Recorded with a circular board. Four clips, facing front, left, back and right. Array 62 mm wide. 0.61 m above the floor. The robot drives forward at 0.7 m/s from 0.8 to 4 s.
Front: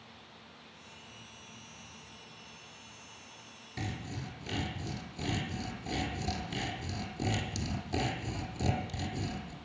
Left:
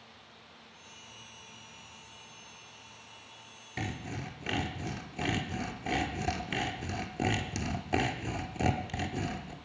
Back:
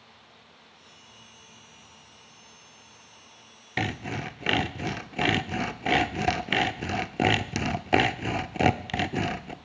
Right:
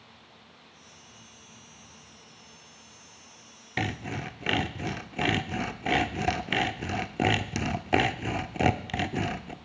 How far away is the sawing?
About 0.6 m.